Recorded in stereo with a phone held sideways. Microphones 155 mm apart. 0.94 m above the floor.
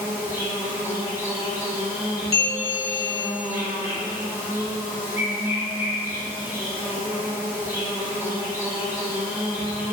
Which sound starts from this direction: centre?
An insect, at 0.0 s.